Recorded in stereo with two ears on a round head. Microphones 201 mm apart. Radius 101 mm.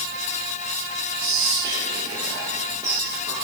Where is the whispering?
15° right (ahead or behind), 0.9 m.